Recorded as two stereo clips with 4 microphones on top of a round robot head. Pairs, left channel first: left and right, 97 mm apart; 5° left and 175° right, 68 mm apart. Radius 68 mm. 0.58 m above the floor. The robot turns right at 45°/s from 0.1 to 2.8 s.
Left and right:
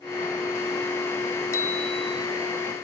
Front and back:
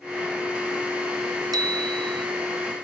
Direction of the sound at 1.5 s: 160° left.